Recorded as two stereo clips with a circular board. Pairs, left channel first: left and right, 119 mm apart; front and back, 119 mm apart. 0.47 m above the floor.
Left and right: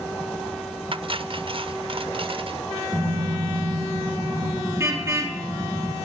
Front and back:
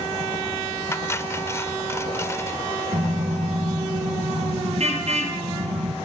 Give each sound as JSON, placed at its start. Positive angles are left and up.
{"t": 0.9, "sound": "cutlery clinking", "azimuth_deg": -65, "distance_m": 0.8}
{"t": 2.9, "sound": "a car horn", "azimuth_deg": -155, "distance_m": 5.5}